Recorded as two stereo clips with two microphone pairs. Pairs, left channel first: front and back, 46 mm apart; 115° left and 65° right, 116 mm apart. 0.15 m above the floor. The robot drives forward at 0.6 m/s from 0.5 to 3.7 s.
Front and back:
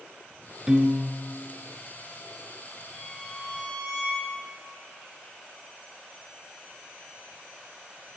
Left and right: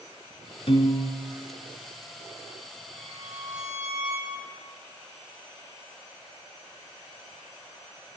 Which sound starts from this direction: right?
A violin, at 2.9 s.